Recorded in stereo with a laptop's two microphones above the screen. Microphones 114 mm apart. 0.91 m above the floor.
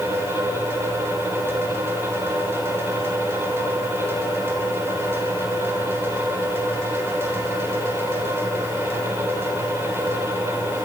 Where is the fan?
20° right (ahead or behind), 3 m.